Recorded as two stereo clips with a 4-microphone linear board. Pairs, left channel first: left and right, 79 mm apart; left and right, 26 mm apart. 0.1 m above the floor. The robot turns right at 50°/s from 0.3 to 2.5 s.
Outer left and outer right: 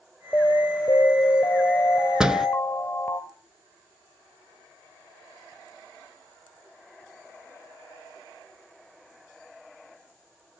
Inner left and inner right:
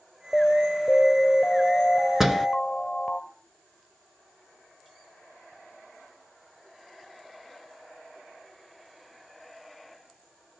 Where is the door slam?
10° right (ahead or behind), 0.8 m; by 2.5 s 5° right (ahead or behind), 0.8 m.